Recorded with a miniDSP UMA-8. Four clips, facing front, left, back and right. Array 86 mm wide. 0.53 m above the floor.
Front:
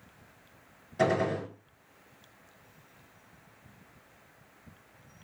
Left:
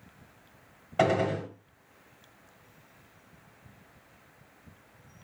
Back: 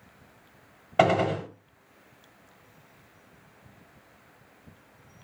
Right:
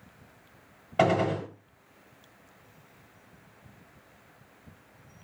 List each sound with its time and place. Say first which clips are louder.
1.0 s a gunshot: right 1 dB, back 5 dB; 170° right, 0.9 m